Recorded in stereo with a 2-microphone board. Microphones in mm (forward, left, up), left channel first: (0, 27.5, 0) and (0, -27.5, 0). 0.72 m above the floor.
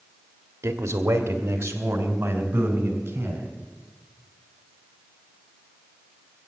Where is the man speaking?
55° right (ahead or behind), 1.2 m; by 3.5 s 40° right (ahead or behind), 3.5 m.